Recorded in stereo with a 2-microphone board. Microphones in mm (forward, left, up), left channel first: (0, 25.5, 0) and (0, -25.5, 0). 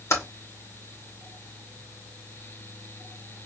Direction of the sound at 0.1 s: 65° left (ahead or behind).